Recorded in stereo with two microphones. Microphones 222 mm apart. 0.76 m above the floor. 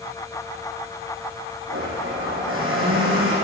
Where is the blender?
70° right (ahead or behind), 8.5 m.